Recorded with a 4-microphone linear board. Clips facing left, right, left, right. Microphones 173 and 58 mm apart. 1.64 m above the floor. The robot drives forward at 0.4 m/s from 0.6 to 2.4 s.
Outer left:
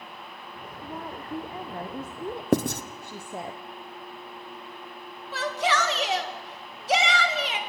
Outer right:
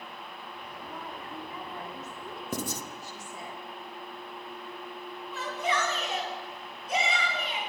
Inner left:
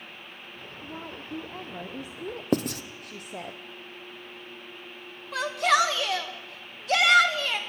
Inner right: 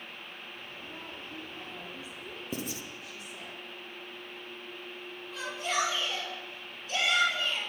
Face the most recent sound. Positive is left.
turn(degrees=90)